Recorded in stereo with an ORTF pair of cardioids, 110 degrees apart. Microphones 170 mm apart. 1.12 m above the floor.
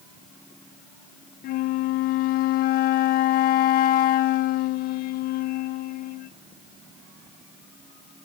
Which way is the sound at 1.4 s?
65° left.